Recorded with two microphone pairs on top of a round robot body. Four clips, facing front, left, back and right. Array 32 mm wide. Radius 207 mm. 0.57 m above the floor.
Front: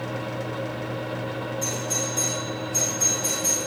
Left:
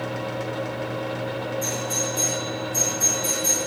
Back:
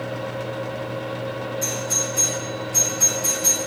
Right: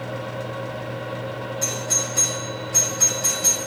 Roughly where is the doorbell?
Right.